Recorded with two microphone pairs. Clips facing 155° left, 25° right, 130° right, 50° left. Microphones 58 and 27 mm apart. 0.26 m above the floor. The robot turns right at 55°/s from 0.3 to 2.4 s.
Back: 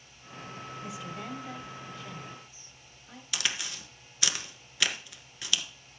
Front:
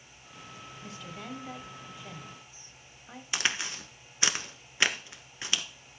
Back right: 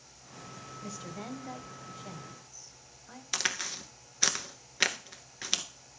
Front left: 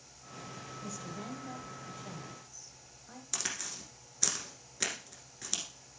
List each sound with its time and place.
0.8 s a woman speaking: 150° right, 1.2 m; by 3.2 s 60° right, 1.2 m
3.3 s a crack: 85° right, 1.1 m